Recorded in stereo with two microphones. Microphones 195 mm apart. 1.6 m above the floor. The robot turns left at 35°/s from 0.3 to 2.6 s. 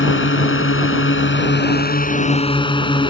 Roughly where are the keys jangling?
I don't hear keys jangling.